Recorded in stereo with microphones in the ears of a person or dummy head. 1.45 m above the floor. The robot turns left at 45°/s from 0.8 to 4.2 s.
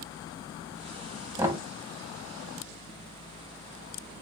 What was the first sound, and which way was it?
Knocking, 10° right (ahead or behind).